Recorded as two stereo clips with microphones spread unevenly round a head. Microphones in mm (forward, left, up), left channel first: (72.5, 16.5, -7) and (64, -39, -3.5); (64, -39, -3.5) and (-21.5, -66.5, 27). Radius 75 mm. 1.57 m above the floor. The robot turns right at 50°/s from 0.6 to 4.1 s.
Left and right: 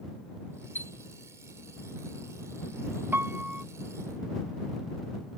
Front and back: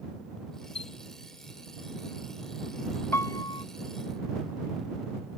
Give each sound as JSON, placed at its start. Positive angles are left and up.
{"t": 0.8, "sound": "a chime", "azimuth_deg": 30}
{"t": 3.1, "sound": "a piano", "azimuth_deg": -50}